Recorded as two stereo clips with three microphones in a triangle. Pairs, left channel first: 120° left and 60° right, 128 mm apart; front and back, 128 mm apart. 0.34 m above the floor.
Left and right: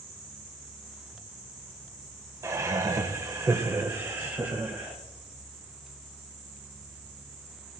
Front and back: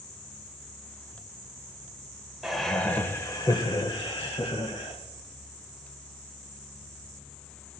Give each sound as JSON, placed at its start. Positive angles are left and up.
{"t": 2.4, "sound": "laughter", "azimuth_deg": -95, "distance_m": 1.1}